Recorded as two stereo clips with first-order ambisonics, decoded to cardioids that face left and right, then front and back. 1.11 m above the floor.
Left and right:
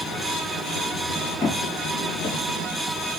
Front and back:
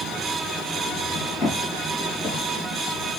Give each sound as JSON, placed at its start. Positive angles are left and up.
{"t": 1.4, "sound": "footsteps", "azimuth_deg": 65, "distance_m": 1.5}